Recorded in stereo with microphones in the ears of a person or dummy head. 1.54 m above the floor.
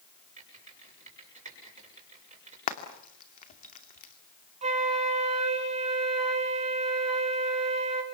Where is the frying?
40° left (ahead or behind), 2.5 m.